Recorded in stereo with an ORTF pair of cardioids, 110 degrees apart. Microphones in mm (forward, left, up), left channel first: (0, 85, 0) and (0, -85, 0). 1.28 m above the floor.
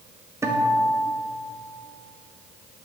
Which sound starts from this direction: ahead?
A guitar, at 0.4 s.